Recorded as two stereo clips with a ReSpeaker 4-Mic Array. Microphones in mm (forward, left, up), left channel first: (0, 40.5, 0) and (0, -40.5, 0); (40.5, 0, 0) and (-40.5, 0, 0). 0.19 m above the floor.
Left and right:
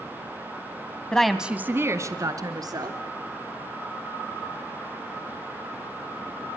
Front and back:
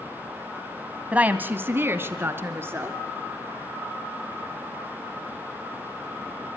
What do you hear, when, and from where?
1.1 s a woman speaking: 145° left, 1.0 m; by 3.0 s 120° right, 2.5 m